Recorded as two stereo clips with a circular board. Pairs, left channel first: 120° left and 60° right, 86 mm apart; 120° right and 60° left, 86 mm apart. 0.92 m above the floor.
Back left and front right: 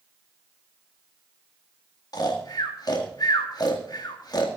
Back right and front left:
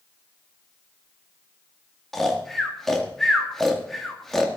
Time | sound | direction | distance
2.1 | snoring | 155° left | 1.9 m